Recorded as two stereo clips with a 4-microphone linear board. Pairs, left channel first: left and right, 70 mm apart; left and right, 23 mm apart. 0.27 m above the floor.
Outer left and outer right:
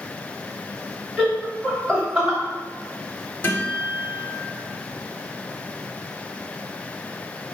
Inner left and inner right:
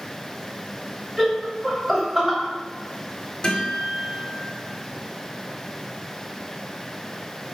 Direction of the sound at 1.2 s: 25° right (ahead or behind).